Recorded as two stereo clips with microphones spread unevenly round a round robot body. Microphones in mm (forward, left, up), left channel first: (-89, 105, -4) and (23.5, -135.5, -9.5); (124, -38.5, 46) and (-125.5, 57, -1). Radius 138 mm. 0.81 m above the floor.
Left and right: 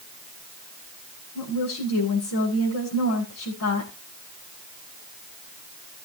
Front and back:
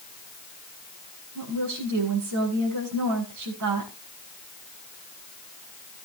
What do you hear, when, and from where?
1.4 s a woman speaking: 145° left, 7 m